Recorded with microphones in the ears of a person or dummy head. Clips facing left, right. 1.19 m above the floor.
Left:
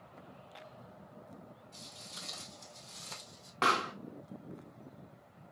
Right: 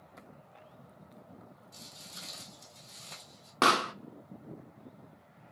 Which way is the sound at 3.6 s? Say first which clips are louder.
Right 5 dB; 65° right (ahead or behind).